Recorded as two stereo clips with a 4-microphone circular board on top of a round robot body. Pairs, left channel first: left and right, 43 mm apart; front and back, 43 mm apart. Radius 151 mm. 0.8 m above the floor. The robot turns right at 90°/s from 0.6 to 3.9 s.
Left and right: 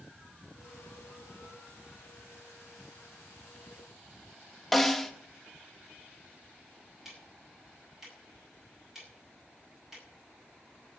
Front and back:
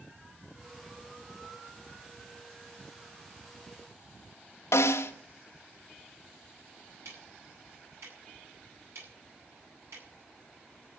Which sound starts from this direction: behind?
Ticking, at 7.0 s.